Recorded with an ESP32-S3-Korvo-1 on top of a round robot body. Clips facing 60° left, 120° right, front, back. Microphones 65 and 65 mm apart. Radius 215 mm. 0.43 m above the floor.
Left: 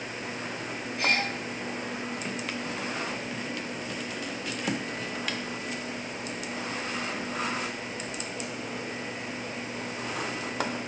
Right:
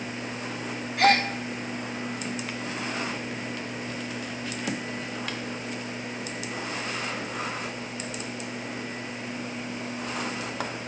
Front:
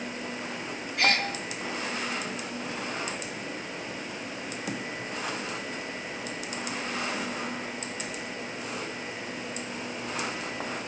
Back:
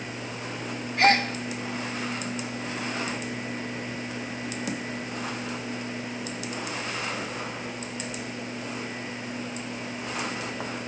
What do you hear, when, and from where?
1.0 s a gasp: 125° right, 6 m